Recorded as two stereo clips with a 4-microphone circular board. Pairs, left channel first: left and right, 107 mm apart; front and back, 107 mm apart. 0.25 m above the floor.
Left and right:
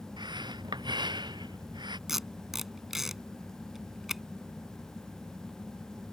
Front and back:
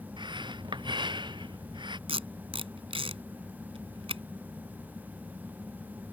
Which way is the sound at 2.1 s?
175° right.